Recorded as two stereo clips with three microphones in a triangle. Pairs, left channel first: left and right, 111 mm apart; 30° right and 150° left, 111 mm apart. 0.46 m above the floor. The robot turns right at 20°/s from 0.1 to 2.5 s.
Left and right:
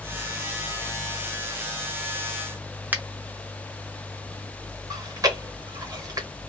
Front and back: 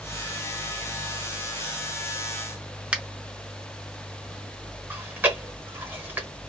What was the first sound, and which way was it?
A finger snap, 145° right.